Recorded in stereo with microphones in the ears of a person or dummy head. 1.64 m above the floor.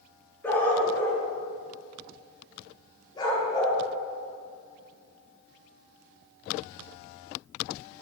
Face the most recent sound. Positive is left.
turn(degrees=35)  # may be behind; listen again after turning